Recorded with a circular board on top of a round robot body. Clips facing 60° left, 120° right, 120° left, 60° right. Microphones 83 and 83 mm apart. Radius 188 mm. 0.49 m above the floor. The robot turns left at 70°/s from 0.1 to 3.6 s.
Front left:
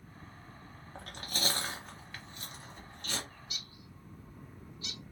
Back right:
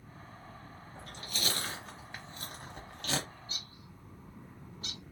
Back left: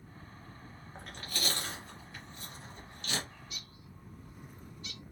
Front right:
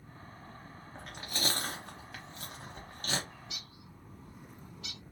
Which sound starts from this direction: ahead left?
Chewing, at 0.9 s.